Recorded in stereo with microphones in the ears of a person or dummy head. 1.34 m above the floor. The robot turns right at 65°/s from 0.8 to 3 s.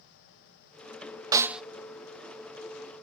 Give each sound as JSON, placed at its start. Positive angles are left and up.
{"t": 1.3, "sound": "a snare drum", "side_deg": -20, "distance_m": 0.7}